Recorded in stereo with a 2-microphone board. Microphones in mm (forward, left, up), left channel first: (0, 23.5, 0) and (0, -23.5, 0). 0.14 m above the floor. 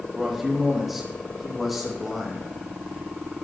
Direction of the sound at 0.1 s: 5° right (ahead or behind).